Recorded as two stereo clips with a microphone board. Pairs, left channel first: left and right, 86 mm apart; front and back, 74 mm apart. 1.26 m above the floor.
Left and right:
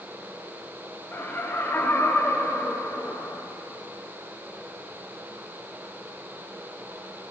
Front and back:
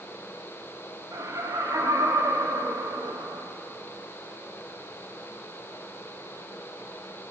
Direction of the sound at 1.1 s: 155° left.